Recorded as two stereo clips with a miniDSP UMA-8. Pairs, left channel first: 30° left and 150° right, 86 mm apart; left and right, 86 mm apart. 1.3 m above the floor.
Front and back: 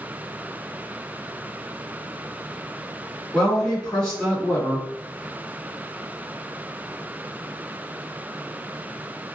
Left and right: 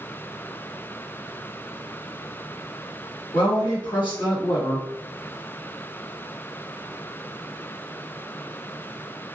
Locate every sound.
3.3 s a woman speaking: 110° left, 1.6 m